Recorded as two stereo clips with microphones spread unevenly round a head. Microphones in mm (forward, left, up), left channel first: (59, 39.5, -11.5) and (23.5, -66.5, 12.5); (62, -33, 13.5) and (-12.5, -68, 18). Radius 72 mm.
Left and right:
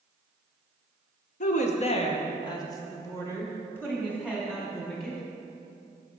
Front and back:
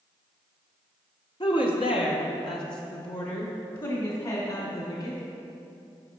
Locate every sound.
1.4 s a woman speaking: 75° left, 0.7 m; by 5.2 s 15° right, 2.5 m